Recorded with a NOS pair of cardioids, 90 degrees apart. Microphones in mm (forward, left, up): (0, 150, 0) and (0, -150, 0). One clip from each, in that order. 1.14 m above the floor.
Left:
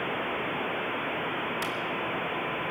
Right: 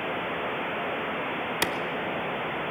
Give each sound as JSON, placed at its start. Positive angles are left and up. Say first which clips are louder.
{"t": 1.6, "sound": "a clap", "louder": "right 5 dB", "azimuth_deg": -60, "distance_m": 0.9}